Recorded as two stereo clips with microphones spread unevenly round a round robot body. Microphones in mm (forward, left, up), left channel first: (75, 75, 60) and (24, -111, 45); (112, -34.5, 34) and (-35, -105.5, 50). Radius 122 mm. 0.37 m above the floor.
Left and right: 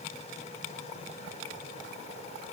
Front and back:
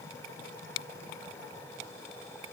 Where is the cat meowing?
No cat meowing in this recording.